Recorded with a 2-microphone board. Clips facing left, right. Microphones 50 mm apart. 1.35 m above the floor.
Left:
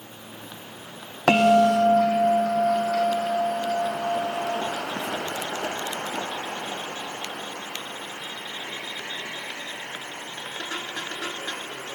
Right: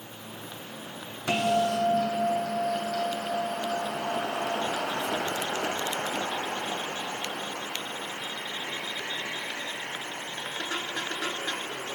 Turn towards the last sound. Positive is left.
turn(degrees=75)  # may be behind; listen again after turning